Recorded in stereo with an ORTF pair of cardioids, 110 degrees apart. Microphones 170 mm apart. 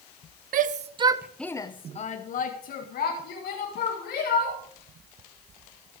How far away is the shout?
About 1.1 m.